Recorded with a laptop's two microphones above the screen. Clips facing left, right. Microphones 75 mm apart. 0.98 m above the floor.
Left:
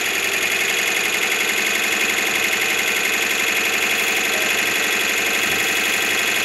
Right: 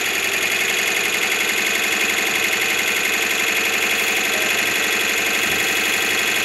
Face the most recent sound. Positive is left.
turn(degrees=0)  # may be behind; listen again after turning